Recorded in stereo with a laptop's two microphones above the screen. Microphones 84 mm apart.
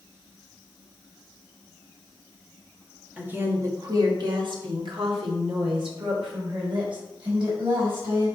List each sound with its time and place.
3.2 s a woman speaking: 15° right (ahead or behind), 1.3 m; by 8.3 s 75° right (ahead or behind), 5 m